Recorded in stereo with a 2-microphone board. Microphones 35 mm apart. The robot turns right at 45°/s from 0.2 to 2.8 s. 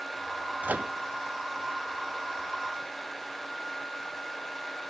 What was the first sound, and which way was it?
A microwave, 50° right (ahead or behind).